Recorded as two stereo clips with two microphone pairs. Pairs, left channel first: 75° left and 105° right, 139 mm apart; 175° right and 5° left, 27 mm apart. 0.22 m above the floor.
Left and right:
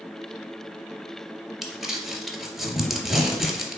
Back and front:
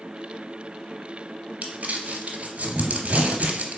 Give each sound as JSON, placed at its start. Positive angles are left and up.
{"t": 1.6, "sound": "crumpling", "azimuth_deg": -15, "distance_m": 0.7}